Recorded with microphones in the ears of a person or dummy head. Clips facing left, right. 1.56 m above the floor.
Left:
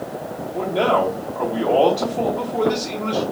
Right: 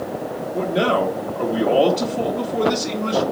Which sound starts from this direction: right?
A man speaking, at 0.5 s.